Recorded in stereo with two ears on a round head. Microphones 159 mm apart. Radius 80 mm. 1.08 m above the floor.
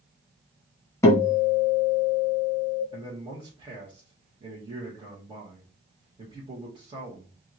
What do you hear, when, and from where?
1.0 s a guitar: 15° left (ahead or behind), 1.2 m
2.9 s a man speaking: 30° right (ahead or behind), 1.4 m